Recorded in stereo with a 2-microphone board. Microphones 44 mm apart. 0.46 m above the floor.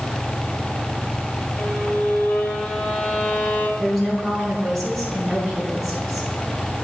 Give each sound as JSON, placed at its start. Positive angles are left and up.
{"t": 1.6, "sound": "a violin", "side_deg": 45, "distance_m": 1.1}
{"t": 3.8, "sound": "a woman speaking", "side_deg": 0, "distance_m": 3.5}